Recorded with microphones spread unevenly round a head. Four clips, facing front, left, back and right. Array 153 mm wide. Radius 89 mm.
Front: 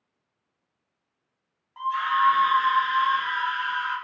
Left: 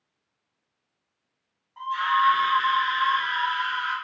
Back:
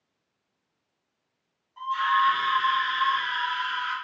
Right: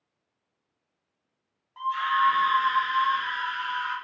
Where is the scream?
10° left, 1.1 m; by 4.0 s 60° right, 1.3 m.